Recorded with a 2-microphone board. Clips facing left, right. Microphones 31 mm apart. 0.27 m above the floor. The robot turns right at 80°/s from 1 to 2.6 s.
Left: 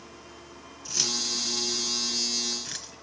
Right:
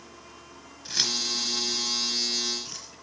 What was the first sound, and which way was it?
Keys jangling, 45° right (ahead or behind).